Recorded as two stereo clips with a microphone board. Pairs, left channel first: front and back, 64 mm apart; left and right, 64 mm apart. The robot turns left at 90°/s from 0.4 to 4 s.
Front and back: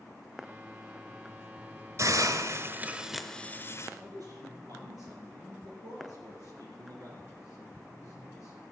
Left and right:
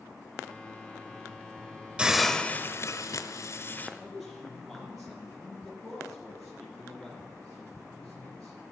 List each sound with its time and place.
2.0 s a hiss: 160° right, 0.9 m; by 3.9 s 30° left, 0.9 m
4.0 s a man speaking: 175° left, 5 m